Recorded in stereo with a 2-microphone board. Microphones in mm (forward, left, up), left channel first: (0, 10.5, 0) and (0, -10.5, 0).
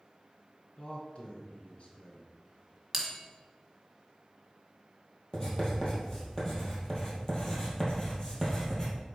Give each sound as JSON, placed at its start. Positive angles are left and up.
{"t": 0.8, "sound": "a man speaking", "side_deg": 55, "distance_m": 1.8}
{"t": 2.9, "sound": "a bell", "side_deg": -5, "distance_m": 1.7}
{"t": 5.3, "sound": "writing", "side_deg": 20, "distance_m": 2.5}